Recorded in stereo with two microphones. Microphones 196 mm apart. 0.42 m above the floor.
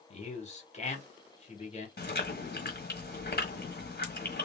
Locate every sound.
0.1 s a man speaking: 35° left (ahead or behind), 1.5 m
2.0 s chewing: 55° left (ahead or behind), 1.2 m